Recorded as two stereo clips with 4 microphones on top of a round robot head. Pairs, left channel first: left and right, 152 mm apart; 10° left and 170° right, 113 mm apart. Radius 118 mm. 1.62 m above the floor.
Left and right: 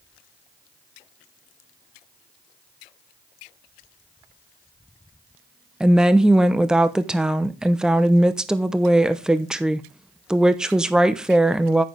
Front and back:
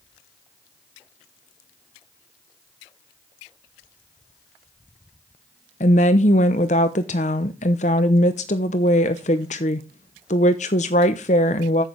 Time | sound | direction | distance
5.8 | a woman speaking | 5° right | 0.8 m